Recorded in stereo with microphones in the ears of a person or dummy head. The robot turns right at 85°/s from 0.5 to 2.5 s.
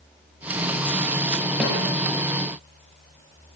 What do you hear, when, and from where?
1.6 s a snare drum: 5° right (ahead or behind), 8 m; by 1.8 s 20° right (ahead or behind), 8 m